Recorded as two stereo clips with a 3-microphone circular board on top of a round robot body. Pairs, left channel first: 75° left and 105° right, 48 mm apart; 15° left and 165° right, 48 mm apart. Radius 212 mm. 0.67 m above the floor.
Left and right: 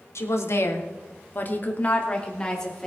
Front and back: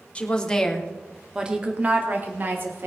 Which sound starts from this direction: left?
A woman speaking, at 0.1 s.